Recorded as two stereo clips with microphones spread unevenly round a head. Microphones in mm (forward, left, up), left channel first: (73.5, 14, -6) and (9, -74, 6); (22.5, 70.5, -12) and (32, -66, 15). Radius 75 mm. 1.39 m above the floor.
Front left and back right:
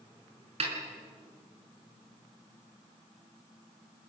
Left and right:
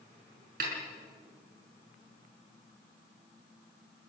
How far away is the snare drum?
About 5.5 m.